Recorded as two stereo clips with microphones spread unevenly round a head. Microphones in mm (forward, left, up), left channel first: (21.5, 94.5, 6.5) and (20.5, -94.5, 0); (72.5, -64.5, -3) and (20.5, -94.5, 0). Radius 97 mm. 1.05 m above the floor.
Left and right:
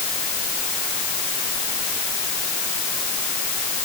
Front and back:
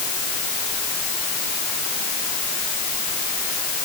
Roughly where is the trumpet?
No trumpet in this recording.